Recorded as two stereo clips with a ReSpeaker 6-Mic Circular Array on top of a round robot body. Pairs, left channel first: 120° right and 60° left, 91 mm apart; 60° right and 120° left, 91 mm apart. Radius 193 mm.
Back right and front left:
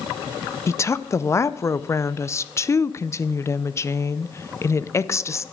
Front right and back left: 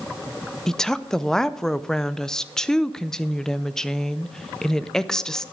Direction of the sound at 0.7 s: 140° right.